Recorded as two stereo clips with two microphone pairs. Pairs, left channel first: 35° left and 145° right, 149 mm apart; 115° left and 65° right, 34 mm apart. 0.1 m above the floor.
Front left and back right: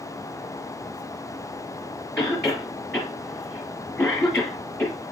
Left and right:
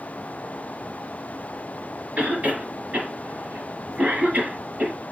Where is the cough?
50° right, 1.9 m.